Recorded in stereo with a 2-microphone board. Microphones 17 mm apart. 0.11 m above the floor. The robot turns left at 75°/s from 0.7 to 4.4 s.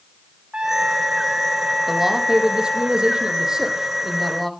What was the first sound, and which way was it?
A trumpet, 80° right.